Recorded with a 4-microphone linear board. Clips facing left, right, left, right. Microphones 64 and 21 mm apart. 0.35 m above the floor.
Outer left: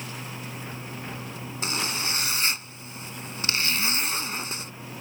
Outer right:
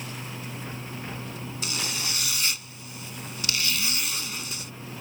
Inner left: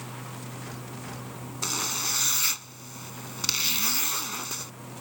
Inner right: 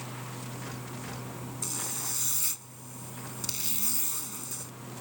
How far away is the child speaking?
No child speaking in this recording.